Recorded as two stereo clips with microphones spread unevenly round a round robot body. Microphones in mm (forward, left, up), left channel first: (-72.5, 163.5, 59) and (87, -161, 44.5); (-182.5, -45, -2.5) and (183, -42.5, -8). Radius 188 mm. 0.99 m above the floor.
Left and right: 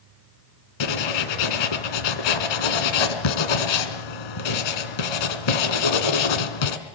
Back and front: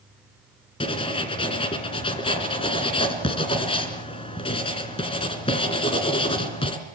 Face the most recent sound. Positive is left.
turn(degrees=105)